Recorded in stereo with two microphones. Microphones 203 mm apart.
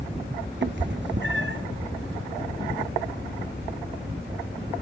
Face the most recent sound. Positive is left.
turn(degrees=-60)  # may be behind; listen again after turning